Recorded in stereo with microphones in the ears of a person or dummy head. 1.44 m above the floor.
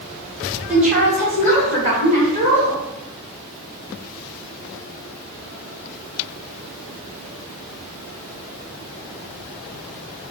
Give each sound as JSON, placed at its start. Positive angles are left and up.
{"t": 0.7, "sound": "a woman speaking", "side_deg": -10, "distance_m": 1.4}